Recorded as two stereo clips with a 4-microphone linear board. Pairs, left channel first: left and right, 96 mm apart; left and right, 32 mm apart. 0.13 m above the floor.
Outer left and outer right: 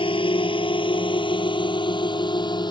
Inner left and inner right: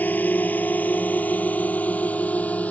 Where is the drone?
60° left (ahead or behind); by 2.7 s 45° left (ahead or behind).